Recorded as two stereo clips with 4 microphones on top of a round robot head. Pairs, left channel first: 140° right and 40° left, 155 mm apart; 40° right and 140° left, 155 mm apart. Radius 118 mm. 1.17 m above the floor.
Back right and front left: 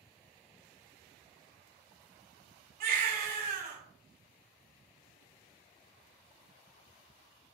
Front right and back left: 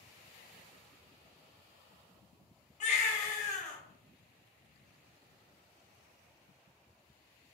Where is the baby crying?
5° left, 1.5 m.